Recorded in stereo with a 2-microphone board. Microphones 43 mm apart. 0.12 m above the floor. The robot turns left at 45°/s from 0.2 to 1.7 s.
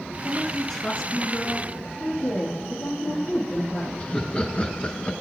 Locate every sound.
0.2 s a woman speaking: 175° right, 1.5 m; by 1.7 s 120° left, 1.5 m
2.0 s a woman speaking: 45° left (ahead or behind), 4 m
4.0 s laughter: 25° left (ahead or behind), 1.2 m